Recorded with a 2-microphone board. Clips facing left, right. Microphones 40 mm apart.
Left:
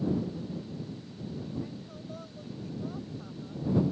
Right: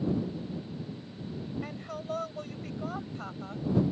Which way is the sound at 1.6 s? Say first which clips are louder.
Right 5 dB; 85° right.